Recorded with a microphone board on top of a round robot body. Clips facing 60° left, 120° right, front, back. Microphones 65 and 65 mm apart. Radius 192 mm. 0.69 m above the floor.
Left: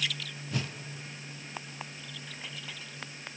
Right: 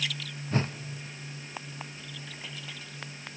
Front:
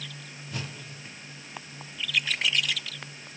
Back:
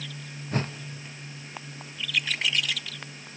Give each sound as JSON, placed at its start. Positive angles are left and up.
{"t": 0.5, "sound": "a whoosh", "azimuth_deg": -160, "distance_m": 1.1}